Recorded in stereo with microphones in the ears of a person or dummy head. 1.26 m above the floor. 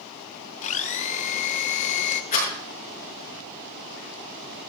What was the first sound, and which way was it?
A blender, 40° left (ahead or behind).